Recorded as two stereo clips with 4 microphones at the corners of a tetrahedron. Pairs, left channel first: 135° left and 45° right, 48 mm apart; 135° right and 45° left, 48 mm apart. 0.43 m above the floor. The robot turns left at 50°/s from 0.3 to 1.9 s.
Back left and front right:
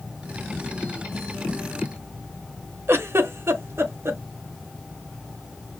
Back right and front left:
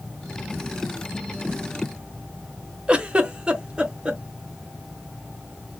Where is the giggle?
20° right, 0.5 m.